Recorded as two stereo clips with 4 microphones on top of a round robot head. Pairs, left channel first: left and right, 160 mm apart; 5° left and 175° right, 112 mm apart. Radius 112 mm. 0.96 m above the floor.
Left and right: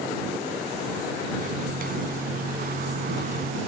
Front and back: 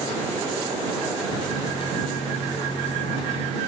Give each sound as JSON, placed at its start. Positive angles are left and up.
{"t": 1.4, "sound": "a microwave", "azimuth_deg": -55}